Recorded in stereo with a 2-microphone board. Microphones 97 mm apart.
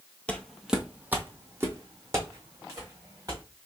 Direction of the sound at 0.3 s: 15° left (ahead or behind).